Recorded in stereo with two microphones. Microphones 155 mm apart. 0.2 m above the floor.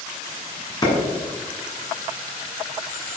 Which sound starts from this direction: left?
A clap, at 0.8 s.